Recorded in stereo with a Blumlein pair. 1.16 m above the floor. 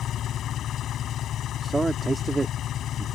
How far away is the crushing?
No crushing in this recording.